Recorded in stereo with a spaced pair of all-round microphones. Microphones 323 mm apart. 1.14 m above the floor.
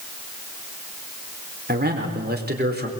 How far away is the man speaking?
About 4.5 m.